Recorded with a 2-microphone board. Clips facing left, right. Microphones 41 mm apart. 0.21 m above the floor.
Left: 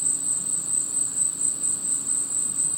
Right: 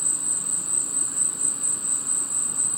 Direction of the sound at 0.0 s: 40° right (ahead or behind).